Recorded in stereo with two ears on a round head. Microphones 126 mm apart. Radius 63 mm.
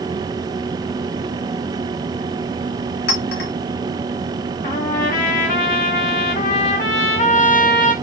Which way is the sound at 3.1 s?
80° left.